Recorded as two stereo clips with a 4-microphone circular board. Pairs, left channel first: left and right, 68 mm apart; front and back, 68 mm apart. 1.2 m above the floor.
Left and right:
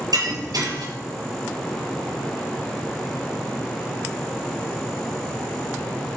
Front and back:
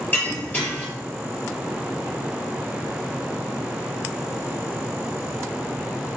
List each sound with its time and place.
0.1 s breaking glass: 65° right, 6.5 m